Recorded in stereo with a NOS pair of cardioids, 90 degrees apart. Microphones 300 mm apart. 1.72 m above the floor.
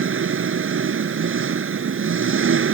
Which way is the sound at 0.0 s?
45° right.